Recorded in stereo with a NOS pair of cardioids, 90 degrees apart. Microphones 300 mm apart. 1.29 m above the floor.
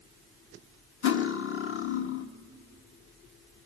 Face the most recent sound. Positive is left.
turn(degrees=45)